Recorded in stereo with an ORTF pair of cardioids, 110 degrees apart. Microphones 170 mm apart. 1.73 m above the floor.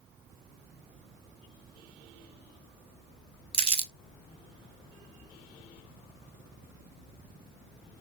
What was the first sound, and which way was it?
Crumpling, 30° right.